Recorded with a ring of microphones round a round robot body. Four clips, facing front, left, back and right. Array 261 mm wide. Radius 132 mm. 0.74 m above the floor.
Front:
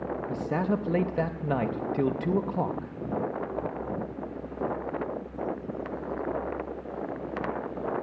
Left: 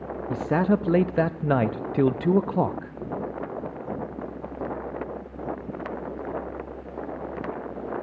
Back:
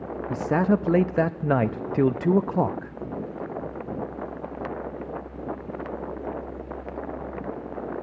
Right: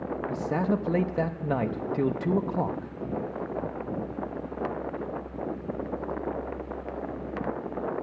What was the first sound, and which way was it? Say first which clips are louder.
A man speaking: left 6 dB, back 7 dB; 140° left.